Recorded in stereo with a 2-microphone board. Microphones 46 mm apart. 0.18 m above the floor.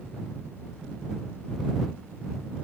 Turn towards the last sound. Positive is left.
No sound to turn to.